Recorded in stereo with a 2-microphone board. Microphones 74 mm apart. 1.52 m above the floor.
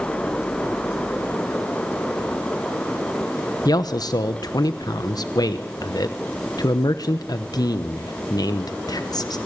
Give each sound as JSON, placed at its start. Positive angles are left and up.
{"t": 3.6, "sound": "a man speaking", "side_deg": 60, "distance_m": 0.9}